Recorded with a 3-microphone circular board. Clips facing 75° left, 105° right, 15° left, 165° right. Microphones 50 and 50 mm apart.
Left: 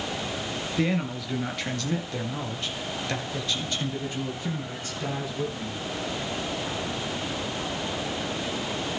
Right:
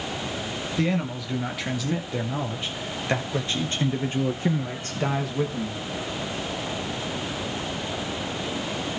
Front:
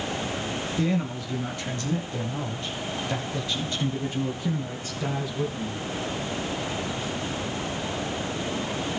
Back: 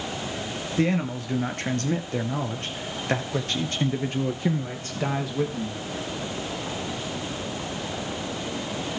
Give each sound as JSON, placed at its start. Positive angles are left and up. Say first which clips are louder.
{"t": 0.8, "sound": "a man speaking", "louder": "right 1 dB, back 4 dB", "azimuth_deg": 155, "distance_m": 2.5}